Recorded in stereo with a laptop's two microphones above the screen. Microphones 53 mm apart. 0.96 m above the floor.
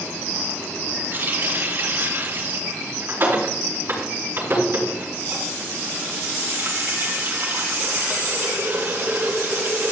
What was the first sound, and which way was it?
A running tap, 45° right (ahead or behind).